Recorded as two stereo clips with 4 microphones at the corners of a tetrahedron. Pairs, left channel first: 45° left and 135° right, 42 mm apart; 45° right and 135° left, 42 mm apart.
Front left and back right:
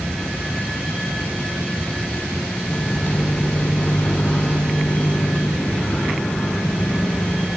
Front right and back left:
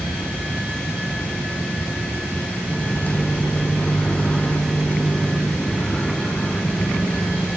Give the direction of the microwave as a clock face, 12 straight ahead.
12 o'clock.